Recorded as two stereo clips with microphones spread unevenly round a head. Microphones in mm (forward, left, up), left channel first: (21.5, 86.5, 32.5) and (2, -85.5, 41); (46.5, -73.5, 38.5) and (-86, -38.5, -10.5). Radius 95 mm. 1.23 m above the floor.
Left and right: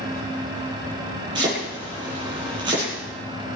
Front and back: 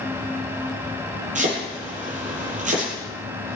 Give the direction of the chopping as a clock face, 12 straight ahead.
5 o'clock.